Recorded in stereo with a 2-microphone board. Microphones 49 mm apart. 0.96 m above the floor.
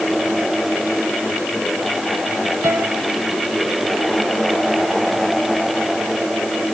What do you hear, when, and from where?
2.6 s a piano: 65° right (ahead or behind)